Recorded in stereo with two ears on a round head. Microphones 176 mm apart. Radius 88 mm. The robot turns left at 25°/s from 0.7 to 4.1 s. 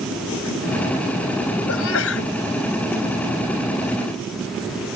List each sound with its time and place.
1.7 s a sneeze: 80° left; by 2.3 s 65° left (ahead or behind)